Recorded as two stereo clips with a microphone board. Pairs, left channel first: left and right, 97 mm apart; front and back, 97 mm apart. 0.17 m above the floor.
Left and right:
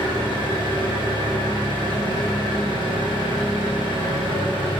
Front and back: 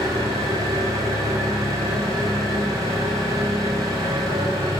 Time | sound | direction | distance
0.0 | an engine running | 130° right | 7 m